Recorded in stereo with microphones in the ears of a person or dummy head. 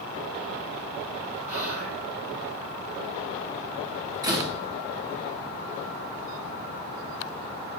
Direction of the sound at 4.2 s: 20° right (ahead or behind).